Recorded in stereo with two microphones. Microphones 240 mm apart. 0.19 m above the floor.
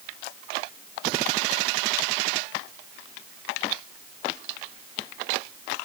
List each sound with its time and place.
Only background noise.